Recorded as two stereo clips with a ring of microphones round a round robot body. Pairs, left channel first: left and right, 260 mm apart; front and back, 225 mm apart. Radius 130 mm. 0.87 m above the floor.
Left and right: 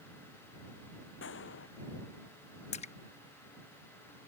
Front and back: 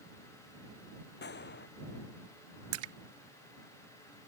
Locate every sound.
1.2 s a gunshot: 45° left
2.7 s a splash: 160° left